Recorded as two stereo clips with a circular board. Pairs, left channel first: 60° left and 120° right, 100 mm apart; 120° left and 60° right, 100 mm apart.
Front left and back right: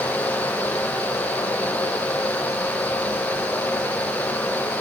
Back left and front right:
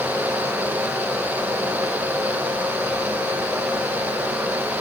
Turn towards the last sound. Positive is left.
No sound to turn to.